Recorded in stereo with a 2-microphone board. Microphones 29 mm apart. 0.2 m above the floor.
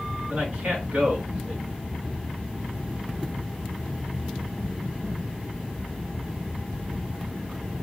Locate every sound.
0.3 s a man speaking: 50° right (ahead or behind), 2 m